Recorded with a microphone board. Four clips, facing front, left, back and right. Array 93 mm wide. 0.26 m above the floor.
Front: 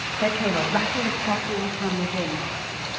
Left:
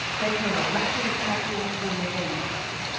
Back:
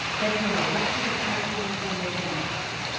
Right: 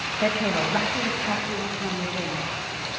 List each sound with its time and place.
0.2 s a woman speaking: 45° right, 1.5 m; by 2.5 s straight ahead, 3 m